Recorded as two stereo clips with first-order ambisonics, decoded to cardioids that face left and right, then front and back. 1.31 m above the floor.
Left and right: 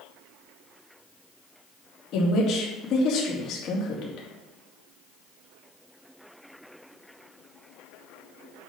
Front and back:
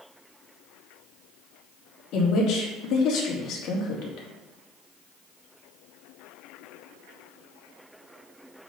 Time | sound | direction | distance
2.1 | a woman speaking | 45° left | 3 m